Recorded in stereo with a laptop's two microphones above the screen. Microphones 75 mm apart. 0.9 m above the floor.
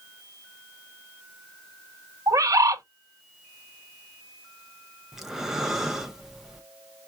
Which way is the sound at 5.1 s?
5° right (ahead or behind).